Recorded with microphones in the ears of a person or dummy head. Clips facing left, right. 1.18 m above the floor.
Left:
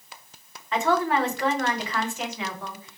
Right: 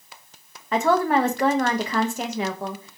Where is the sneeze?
No sneeze in this recording.